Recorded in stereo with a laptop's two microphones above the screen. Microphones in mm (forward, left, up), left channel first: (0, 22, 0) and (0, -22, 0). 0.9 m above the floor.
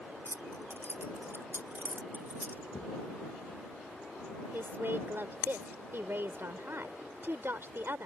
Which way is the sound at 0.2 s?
80° right.